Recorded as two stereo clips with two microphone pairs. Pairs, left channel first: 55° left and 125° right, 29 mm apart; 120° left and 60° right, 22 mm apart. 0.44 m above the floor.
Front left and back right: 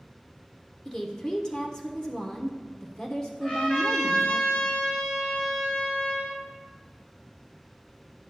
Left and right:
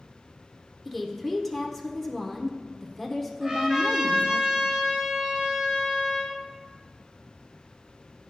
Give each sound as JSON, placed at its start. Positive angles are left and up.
{"t": 0.8, "sound": "a woman speaking", "azimuth_deg": 60, "distance_m": 0.9}
{"t": 3.4, "sound": "a trumpet", "azimuth_deg": 10, "distance_m": 2.5}